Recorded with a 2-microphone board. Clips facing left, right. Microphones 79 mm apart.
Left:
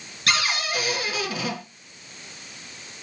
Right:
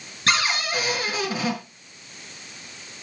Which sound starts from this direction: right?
A cupboard door, at 0.3 s.